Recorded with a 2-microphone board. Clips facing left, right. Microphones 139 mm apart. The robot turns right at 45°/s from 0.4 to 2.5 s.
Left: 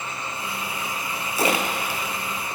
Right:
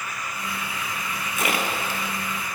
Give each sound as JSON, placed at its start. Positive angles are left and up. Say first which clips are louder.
{"t": 1.4, "sound": "a splash", "louder": "left 3 dB", "side_deg": 35, "distance_m": 0.6}